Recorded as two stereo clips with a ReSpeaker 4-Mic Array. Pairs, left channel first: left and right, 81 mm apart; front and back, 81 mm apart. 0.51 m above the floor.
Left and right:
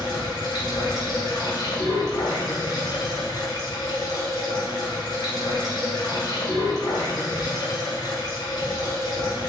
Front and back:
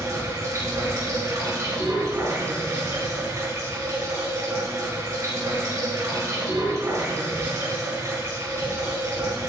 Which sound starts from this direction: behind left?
Running water, at 0.0 s.